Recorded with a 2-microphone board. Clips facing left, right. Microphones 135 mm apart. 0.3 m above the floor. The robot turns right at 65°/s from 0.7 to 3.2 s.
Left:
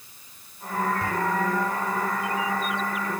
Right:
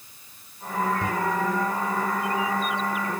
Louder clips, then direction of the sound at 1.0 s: Right 1 dB; 20° right (ahead or behind).